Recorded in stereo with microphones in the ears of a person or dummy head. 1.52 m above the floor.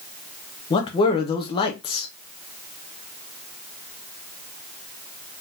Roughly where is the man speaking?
Left.